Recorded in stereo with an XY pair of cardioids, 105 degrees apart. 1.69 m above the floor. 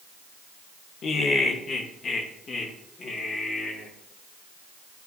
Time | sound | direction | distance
1.0 | laughter | 55° left | 2.0 m